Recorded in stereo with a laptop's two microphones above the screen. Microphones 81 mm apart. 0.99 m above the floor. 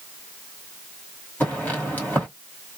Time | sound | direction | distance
1.4 | footsteps | 20° left (ahead or behind) | 1.6 m